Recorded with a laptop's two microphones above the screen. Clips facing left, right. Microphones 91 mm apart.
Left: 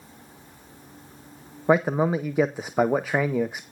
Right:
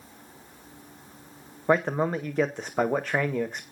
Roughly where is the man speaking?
Centre.